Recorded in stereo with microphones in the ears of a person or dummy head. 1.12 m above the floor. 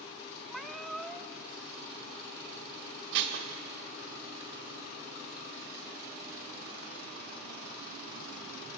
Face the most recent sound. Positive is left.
turn(degrees=-60)  # may be behind; listen again after turning